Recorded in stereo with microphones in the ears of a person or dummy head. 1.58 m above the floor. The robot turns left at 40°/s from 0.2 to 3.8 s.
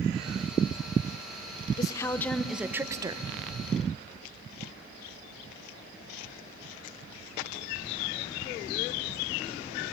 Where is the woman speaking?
30° left, 1.0 m; by 3.3 s 30° right, 1.0 m.